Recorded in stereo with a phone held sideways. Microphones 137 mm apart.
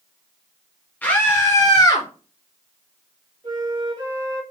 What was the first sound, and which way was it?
A scream, 10° left (ahead or behind).